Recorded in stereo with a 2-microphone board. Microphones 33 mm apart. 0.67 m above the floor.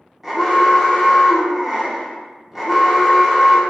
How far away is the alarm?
About 0.8 m.